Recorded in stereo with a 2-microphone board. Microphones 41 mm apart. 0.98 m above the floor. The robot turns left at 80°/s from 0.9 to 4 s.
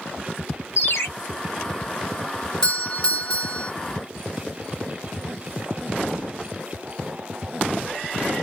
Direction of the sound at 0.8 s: 80° left.